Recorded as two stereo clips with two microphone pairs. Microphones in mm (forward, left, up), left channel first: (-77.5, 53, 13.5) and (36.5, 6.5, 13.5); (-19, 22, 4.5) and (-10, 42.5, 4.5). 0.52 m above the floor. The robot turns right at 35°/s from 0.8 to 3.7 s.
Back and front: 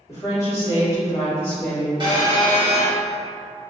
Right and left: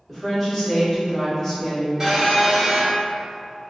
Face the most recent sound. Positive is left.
turn(degrees=75)